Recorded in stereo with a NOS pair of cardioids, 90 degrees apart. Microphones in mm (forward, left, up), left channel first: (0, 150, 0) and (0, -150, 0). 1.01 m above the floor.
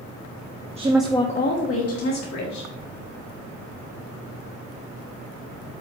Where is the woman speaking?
20° right, 1.1 m; by 2.7 s 70° left, 3 m.